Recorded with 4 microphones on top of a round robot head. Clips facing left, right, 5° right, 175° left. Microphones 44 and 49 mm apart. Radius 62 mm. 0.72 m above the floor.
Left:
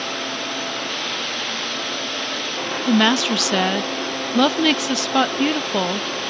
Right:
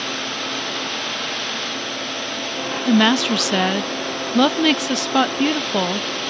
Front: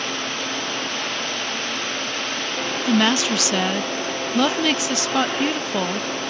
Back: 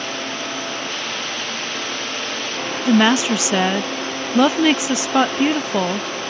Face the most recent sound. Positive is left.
turn(degrees=-175)